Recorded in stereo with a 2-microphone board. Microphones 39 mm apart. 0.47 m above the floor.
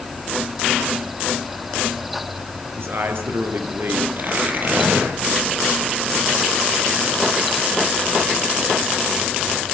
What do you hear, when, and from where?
2.8 s a man speaking: 65° right (ahead or behind), 7 m
4.2 s tearing paper: 50° right (ahead or behind), 10 m